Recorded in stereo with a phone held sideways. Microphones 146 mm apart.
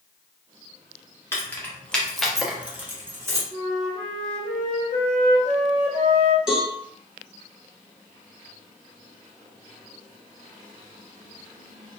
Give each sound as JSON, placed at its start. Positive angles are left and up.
{"t": 1.3, "sound": "keys jangling", "side_deg": 15, "distance_m": 0.8}
{"t": 3.5, "sound": "a flute", "side_deg": 80, "distance_m": 0.9}
{"t": 6.5, "sound": "a cowbell", "side_deg": -5, "distance_m": 1.0}